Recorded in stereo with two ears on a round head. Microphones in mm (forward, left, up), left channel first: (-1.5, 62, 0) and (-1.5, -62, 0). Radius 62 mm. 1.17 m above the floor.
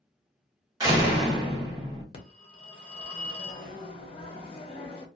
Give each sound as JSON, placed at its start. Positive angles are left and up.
{"t": 0.8, "sound": "a door slam", "side_deg": -30, "distance_m": 1.5}
{"t": 2.1, "sound": "a phone ringing", "side_deg": 40, "distance_m": 0.8}